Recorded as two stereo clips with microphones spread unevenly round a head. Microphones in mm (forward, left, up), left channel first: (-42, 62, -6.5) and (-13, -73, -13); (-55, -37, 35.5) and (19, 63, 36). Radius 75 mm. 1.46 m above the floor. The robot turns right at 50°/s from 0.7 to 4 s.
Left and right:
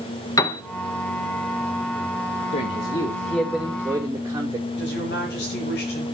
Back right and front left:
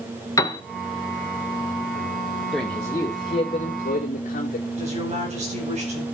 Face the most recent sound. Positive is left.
turn(degrees=85)